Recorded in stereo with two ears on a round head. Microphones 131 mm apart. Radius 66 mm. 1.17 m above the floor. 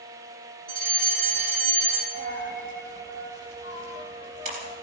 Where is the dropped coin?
60° right (ahead or behind), 3.5 m.